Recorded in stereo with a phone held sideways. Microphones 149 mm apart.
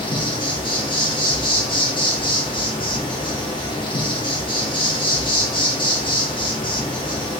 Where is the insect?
35° left (ahead or behind), 0.9 m.